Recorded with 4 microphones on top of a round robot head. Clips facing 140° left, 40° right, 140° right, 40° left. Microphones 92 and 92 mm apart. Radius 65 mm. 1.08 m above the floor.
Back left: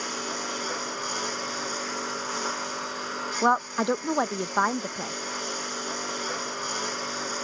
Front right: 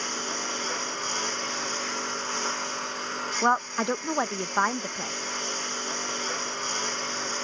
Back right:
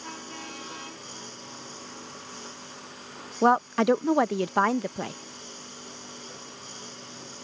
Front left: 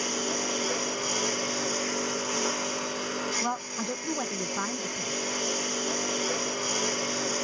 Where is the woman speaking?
140° right.